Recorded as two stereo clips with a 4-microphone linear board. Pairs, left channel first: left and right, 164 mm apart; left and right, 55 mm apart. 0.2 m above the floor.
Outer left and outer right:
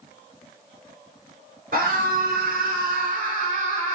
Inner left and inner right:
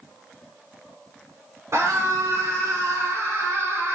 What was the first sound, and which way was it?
A scream, 65° right (ahead or behind).